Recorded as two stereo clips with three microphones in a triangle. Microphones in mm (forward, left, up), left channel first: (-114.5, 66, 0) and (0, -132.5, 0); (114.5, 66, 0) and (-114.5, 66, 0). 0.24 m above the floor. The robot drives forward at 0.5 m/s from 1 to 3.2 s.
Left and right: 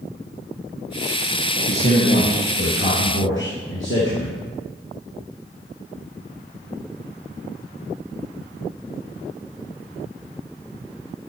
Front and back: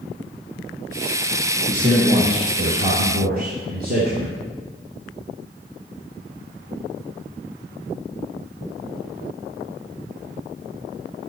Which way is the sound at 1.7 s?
115° left.